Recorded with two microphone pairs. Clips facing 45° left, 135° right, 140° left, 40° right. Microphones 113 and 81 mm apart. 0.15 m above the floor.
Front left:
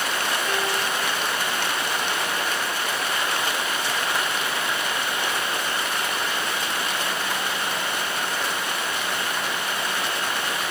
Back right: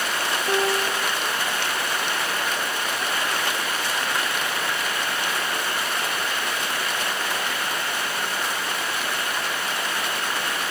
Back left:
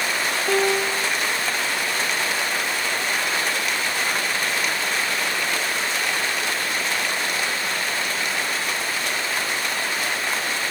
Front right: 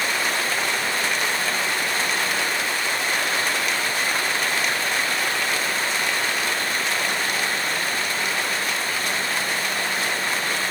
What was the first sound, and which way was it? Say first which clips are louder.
A piano: back right 3 dB, back left 4 dB; 160° left.